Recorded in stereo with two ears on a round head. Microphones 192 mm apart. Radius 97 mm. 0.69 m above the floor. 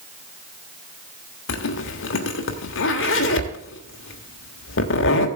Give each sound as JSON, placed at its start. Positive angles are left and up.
{"t": 1.5, "sound": "a zipper", "side_deg": 65, "distance_m": 1.3}